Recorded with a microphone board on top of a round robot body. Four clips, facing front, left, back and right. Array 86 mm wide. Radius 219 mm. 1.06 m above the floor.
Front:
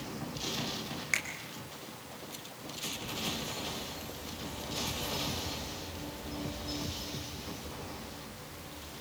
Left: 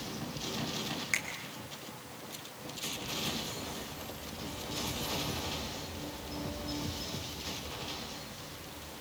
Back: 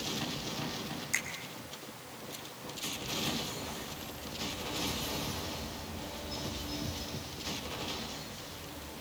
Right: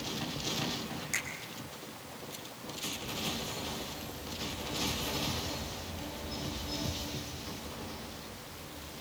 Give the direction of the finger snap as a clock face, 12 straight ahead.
11 o'clock.